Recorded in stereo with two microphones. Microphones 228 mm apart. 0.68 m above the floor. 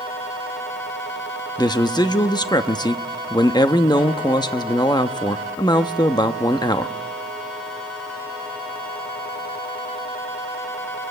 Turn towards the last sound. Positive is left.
turn(degrees=20)  # may be behind; listen again after turning